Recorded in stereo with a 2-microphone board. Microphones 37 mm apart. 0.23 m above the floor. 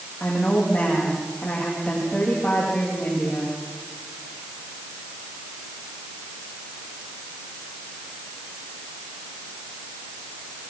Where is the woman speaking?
35° left (ahead or behind), 9.5 m.